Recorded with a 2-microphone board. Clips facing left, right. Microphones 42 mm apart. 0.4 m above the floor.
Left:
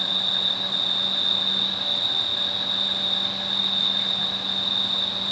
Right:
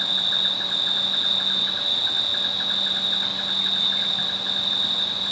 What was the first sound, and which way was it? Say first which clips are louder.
An insect: right 1 dB; 60° right (ahead or behind).